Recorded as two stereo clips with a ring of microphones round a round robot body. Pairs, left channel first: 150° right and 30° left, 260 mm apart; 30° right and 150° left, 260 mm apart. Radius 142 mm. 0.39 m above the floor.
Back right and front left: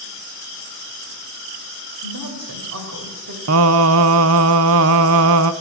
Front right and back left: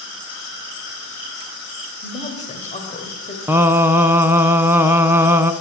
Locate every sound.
2.0 s a woman speaking: 30° left, 2 m
3.5 s singing: 65° left, 0.7 m